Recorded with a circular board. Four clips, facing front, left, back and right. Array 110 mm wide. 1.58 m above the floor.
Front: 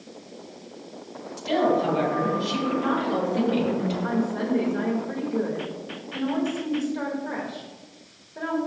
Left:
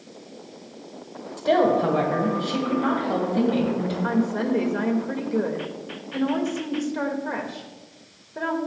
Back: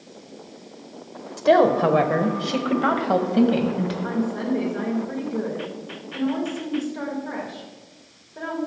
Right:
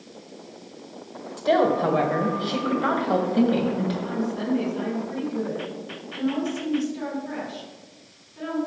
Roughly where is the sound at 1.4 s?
Behind.